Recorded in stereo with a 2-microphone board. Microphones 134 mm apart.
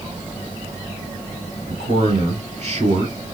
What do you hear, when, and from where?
1.7 s a man speaking: 60° right (ahead or behind), 3 m